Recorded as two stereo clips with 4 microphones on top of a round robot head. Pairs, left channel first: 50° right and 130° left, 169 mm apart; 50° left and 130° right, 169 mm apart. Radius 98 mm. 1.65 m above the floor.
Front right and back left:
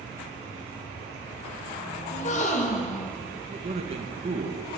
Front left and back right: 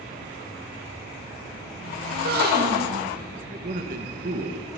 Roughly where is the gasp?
Right.